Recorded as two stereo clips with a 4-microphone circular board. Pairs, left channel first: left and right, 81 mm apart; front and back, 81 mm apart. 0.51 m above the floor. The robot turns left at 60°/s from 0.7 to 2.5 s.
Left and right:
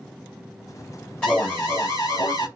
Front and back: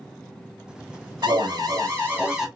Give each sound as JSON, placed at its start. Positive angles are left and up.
{"t": 1.2, "sound": "an alarm", "azimuth_deg": 165, "distance_m": 3.0}